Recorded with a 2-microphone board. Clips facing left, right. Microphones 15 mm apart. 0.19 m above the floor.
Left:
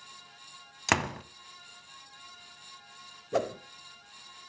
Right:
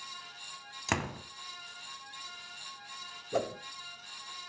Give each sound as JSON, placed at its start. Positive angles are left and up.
{"t": 0.9, "sound": "a door slam", "side_deg": 25, "distance_m": 0.7}
{"t": 3.3, "sound": "a whoosh", "side_deg": 15, "distance_m": 0.6}